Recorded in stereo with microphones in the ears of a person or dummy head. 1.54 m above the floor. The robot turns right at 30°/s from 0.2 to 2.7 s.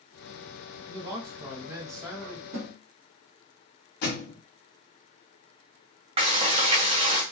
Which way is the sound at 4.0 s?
60° left (ahead or behind).